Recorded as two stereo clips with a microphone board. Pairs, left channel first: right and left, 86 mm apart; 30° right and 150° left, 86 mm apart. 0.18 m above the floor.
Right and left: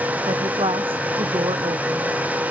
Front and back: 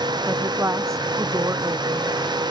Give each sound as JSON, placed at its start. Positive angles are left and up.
{"t": 0.3, "sound": "a woman speaking", "azimuth_deg": 95}